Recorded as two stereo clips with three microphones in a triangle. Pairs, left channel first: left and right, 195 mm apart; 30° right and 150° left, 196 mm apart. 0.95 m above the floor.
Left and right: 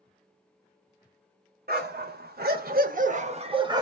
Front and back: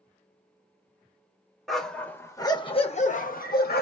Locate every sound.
1.7 s a dog barking: 120° right, 1.1 m; by 3.8 s 25° right, 0.8 m